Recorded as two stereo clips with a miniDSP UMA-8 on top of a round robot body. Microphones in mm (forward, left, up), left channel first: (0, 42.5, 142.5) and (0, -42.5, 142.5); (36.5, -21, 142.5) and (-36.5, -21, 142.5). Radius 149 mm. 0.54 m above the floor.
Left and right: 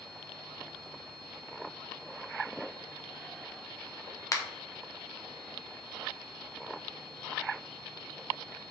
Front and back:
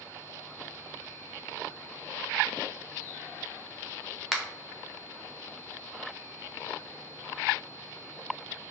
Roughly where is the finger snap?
Left.